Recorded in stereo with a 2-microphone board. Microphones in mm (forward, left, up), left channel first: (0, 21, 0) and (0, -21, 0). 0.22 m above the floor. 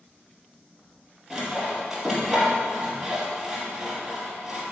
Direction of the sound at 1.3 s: Centre (ahead or behind).